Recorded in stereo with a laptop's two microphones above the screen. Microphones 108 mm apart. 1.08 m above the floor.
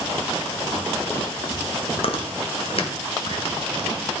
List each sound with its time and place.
2.0 s chewing: 60° left (ahead or behind), 0.8 m